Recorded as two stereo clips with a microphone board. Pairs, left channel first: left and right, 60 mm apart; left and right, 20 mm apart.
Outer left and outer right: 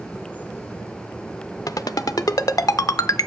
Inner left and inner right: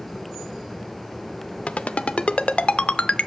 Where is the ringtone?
85° left, 0.6 m.